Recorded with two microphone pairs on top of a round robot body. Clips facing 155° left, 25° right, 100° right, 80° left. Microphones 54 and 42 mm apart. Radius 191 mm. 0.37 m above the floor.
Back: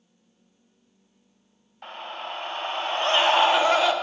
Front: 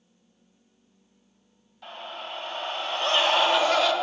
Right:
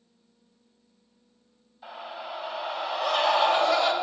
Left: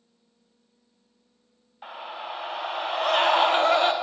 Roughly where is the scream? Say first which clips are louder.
Back 3 dB, left 2 dB; left.